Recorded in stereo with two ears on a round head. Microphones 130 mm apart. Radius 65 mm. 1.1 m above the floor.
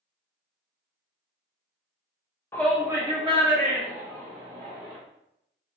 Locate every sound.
2.5 s a shout: 15° left (ahead or behind), 0.7 m; by 5.0 s 65° right (ahead or behind), 2.5 m